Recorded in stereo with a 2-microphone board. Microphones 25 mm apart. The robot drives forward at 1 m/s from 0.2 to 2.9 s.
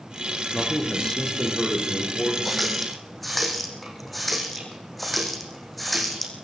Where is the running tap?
Centre (ahead or behind), 4 m.